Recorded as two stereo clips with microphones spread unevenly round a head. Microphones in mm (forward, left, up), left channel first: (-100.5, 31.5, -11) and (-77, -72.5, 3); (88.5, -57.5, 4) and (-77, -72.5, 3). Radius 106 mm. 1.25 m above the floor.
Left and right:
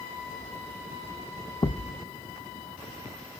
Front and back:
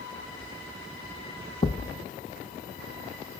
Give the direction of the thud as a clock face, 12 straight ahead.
10 o'clock.